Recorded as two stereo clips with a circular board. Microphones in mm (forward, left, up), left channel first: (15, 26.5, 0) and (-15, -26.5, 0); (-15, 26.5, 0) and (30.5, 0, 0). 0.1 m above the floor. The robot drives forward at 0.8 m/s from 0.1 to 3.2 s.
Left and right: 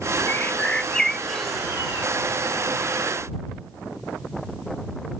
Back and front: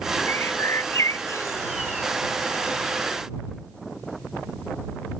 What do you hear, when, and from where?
0.3 s a bird: 110° left; by 1.8 s 155° left